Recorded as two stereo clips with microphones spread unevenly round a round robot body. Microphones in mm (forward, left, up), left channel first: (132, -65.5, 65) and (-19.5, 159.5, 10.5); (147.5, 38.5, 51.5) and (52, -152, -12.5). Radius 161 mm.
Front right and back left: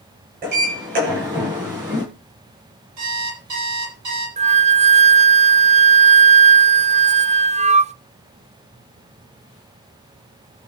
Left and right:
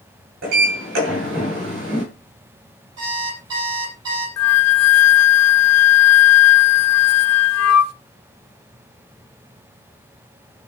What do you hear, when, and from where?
0.4 s a sliding door: 170° right, 8.5 m
3.0 s an alarm clock: 165° left, 6.5 m
4.4 s a flute: 60° left, 0.6 m